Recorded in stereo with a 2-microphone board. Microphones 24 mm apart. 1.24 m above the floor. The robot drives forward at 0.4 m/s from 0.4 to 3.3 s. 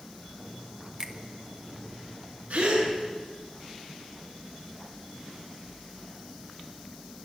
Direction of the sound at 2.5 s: 85° right.